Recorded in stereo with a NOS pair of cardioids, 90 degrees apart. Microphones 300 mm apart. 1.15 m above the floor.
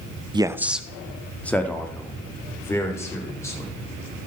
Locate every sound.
0.3 s a man speaking: 15° right, 0.5 m; by 3.7 s 10° left, 4 m